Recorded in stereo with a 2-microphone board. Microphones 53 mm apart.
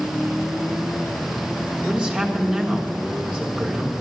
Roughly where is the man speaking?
Centre.